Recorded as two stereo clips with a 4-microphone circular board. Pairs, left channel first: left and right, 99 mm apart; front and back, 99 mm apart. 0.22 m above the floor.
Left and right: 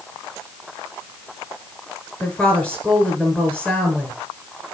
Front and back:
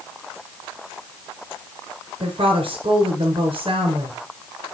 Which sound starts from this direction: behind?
A woman speaking, at 2.2 s.